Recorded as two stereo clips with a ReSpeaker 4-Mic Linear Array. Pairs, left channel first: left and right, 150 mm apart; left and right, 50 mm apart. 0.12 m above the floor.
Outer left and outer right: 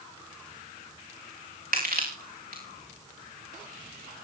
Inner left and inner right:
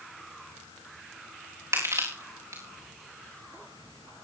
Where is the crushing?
80° right, 7.5 m.